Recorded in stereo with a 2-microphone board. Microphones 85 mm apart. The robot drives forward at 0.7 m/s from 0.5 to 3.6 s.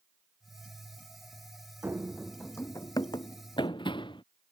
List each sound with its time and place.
1.8 s running footsteps: 25° right (ahead or behind); by 4.2 s 75° left (ahead or behind)